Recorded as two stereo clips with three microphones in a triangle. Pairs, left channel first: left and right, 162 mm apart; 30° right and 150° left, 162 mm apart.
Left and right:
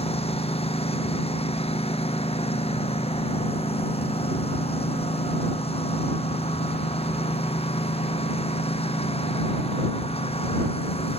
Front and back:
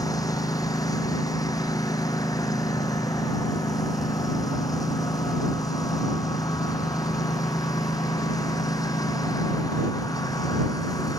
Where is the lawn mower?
40° left.